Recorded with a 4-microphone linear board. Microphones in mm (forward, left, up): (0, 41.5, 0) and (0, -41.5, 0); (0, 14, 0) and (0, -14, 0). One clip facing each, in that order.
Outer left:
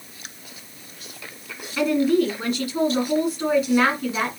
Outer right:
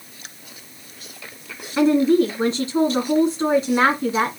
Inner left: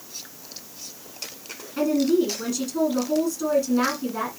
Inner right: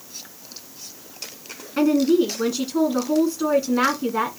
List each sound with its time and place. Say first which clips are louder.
1.8 s a woman speaking: outer right 4 dB, inner right 3 dB; 25° right (ahead or behind), 1.7 m